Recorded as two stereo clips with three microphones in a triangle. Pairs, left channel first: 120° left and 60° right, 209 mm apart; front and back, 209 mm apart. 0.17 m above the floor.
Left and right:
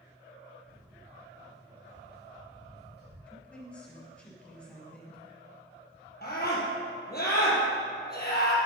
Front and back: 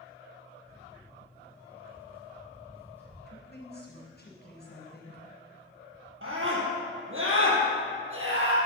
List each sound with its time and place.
0.7 s footsteps: 105° right, 2.5 m; by 3.2 s 100° right, 6.5 m
3.3 s a woman speaking: 35° left, 4 m
6.2 s a scream: 160° left, 4 m